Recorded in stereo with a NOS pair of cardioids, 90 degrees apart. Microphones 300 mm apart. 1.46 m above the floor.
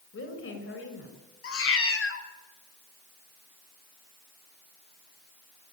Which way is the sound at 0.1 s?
45° left.